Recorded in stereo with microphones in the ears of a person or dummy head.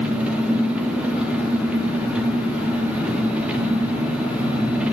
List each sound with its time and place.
0.0 s an engine running: 5° right (ahead or behind), 1.2 m